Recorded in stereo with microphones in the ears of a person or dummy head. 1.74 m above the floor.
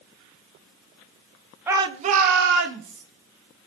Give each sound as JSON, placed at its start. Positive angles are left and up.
{"t": 1.7, "sound": "a shout", "side_deg": -10, "distance_m": 1.3}